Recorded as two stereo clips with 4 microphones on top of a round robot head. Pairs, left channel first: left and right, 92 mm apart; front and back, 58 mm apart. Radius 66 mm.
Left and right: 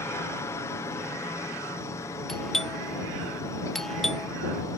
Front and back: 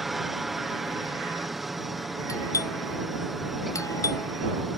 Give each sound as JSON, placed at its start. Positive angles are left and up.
{"t": 0.0, "sound": "a helicopter", "azimuth_deg": 100}
{"t": 2.3, "sound": "a doorbell", "azimuth_deg": 5}